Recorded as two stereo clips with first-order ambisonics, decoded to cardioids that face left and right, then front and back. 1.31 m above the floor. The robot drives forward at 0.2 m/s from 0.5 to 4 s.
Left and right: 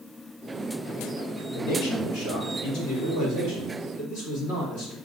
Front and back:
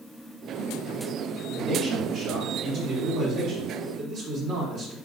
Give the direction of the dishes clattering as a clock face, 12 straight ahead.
I don't hear dishes clattering.